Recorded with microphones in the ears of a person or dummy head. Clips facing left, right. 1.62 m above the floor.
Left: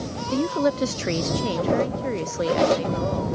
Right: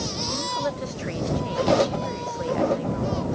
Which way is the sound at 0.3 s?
50° left (ahead or behind).